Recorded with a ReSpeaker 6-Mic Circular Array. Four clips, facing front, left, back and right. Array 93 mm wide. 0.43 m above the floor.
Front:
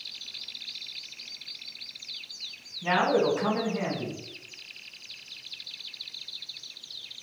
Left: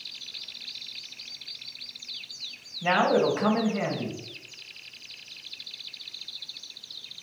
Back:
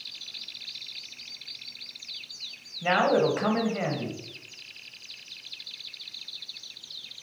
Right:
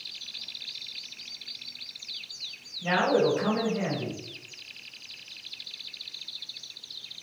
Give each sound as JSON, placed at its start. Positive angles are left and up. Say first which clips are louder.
{"t": 2.8, "sound": "a man speaking", "louder": "left 1 dB, back 1 dB", "azimuth_deg": 145, "distance_m": 2.5}